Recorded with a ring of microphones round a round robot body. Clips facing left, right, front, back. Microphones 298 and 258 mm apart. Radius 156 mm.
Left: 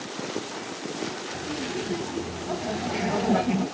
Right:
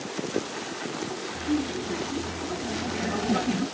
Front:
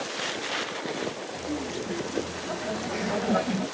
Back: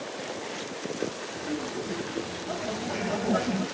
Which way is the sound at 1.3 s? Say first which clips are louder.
Right 6 dB, even; 95° left.